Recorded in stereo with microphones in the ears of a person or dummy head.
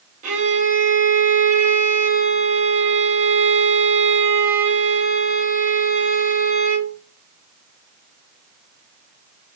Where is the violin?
45° right (ahead or behind), 0.9 m.